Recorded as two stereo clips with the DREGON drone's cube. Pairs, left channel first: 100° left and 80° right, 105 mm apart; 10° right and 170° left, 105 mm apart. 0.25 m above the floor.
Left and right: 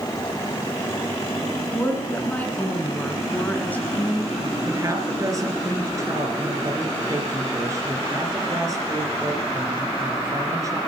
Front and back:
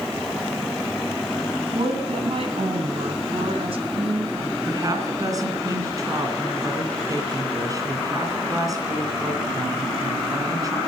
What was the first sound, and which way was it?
A woman speaking, 175° left.